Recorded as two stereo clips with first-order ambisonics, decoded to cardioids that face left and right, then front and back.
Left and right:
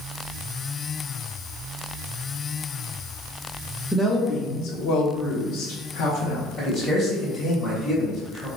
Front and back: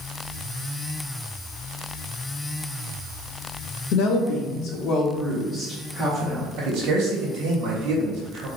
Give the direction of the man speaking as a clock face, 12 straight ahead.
7 o'clock.